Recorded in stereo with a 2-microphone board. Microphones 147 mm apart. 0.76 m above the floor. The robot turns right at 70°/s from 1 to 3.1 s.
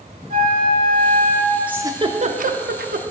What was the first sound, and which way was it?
A flute, 65° right.